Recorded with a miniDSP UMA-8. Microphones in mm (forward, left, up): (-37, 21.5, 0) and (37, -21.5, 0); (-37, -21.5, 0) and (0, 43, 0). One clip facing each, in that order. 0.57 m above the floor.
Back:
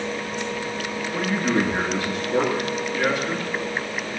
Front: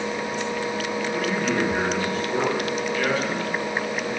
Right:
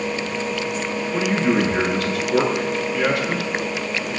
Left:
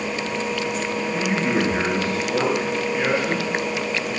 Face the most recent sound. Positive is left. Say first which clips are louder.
# back 3 dB, right 4 dB
turn(degrees=-135)